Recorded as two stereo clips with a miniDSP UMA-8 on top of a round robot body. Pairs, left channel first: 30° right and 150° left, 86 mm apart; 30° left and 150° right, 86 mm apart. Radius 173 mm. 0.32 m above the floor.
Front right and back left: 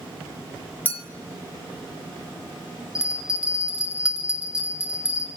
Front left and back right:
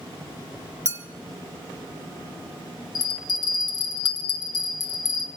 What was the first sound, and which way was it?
A clink, 95° right.